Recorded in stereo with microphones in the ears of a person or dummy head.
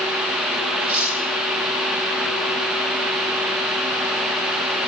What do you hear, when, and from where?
0.8 s cutlery clinking: 5° right (ahead or behind), 8.5 m